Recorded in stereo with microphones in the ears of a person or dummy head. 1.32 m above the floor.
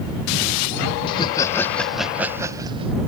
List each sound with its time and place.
1.1 s laughter: 30° left (ahead or behind); by 2.9 s 30° right (ahead or behind)